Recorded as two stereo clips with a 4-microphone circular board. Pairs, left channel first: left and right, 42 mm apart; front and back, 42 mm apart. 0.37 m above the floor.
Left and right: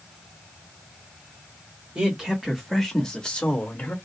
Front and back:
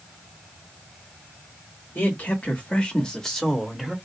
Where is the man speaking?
25° right, 1.1 m; by 4.0 s 95° left, 1.1 m.